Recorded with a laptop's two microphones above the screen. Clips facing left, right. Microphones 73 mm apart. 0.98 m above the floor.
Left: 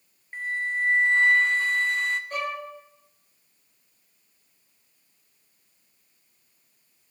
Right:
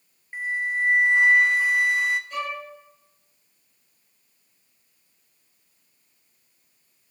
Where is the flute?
10° right (ahead or behind), 0.6 m.